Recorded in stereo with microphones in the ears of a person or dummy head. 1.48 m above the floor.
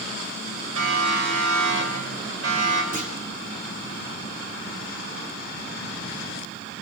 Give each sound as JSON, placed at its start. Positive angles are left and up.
{"t": 0.8, "sound": "a siren", "side_deg": -75, "distance_m": 8.0}
{"t": 2.9, "sound": "a clunk", "side_deg": -30, "distance_m": 4.0}